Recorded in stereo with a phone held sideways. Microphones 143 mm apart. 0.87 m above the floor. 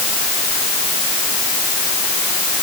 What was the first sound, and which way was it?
Only background noise.